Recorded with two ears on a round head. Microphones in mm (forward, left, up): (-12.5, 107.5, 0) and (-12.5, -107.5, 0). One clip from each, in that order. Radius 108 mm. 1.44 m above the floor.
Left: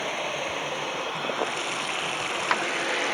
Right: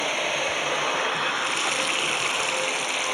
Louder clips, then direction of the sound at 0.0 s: Right 4 dB; 25° right (ahead or behind).